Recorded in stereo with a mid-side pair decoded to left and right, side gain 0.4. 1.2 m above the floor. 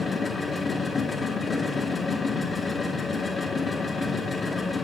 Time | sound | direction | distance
0.0 | a machine running | 35° left | 1.1 m